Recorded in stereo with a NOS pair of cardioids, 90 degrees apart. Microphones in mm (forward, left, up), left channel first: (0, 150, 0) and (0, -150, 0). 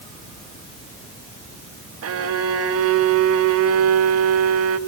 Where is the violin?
50° right, 2 m.